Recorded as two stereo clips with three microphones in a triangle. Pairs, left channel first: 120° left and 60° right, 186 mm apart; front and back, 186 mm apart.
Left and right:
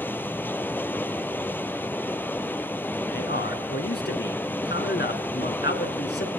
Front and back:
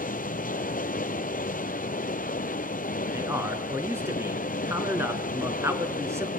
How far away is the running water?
About 1.2 m.